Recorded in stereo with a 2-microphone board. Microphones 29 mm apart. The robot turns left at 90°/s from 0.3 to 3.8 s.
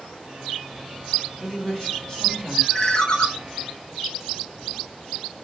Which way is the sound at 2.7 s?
135° left.